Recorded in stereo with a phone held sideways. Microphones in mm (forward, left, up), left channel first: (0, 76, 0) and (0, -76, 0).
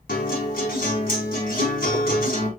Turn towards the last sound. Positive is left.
turn(degrees=75)  # may be behind; listen again after turning